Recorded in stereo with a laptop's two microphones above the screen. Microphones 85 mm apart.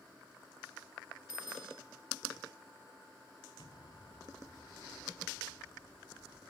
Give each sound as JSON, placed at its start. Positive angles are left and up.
{"t": 1.3, "sound": "a bicycle bell", "side_deg": -5}
{"t": 3.6, "sound": "an explosion", "side_deg": 65}